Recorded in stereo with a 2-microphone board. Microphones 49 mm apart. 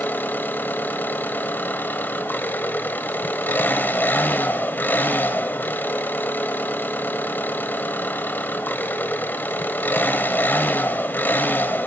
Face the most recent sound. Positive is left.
turn(degrees=45)  # may be behind; listen again after turning